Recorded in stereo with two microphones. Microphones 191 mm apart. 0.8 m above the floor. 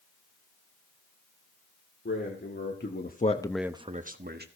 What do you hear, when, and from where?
2.0 s a man speaking: 75° left (ahead or behind), 2.5 m; by 4.5 s 60° right (ahead or behind), 1.5 m